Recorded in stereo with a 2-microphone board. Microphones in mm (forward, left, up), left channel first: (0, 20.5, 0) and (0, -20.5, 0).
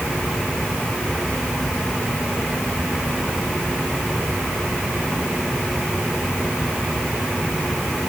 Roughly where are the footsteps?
No footsteps in this recording.